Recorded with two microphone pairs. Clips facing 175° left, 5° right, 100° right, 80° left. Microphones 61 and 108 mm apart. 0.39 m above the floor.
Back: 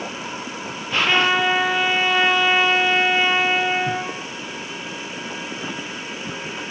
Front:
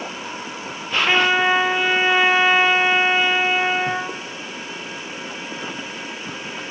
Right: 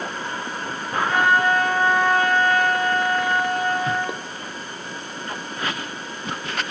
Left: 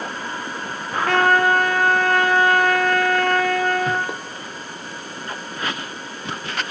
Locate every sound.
1.1 s a trumpet: 70° left, 4.5 m